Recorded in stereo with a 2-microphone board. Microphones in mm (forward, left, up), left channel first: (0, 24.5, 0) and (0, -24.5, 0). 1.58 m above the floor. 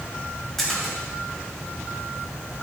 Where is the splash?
5° left (ahead or behind), 2.5 m.